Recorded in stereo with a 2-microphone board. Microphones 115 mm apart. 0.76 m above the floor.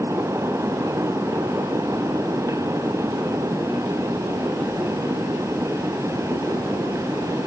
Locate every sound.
Only background noise.